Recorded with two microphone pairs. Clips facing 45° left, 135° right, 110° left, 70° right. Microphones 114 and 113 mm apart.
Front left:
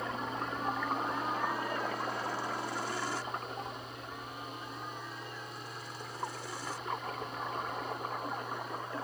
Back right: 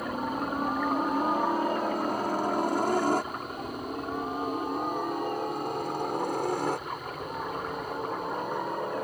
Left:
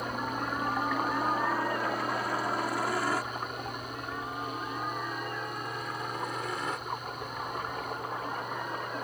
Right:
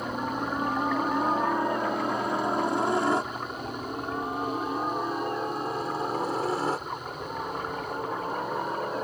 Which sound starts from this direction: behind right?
A helicopter, at 0.0 s.